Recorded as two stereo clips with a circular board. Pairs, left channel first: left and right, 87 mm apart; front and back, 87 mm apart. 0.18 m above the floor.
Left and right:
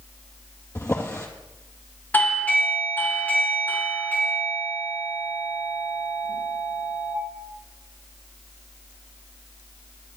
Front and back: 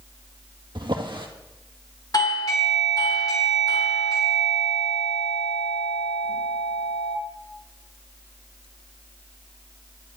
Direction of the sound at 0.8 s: 145° left.